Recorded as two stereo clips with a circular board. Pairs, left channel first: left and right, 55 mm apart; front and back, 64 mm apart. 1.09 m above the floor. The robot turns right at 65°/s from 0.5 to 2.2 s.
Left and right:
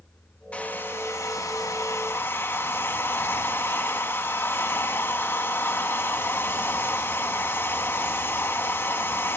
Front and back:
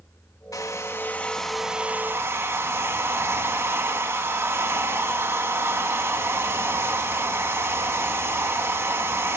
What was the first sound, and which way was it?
A hair dryer, 25° left.